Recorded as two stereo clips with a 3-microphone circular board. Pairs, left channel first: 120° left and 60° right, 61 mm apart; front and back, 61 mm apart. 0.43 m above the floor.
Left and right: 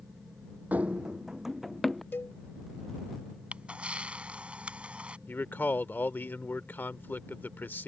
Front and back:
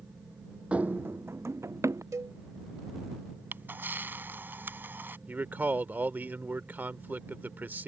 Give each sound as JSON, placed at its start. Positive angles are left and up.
{"t": 0.7, "sound": "running footsteps", "azimuth_deg": -115}
{"t": 2.1, "sound": "a cowbell", "azimuth_deg": 165}
{"t": 3.5, "sound": "a camera shutter", "azimuth_deg": -130}
{"t": 5.3, "sound": "a man speaking", "azimuth_deg": 145}